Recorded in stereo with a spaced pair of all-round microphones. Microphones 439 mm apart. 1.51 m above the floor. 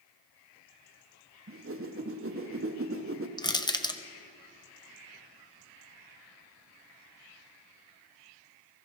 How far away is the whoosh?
About 0.7 m.